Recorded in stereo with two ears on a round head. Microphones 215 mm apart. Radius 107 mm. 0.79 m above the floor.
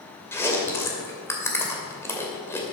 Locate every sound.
0.3 s chewing: 10° left (ahead or behind), 2.5 m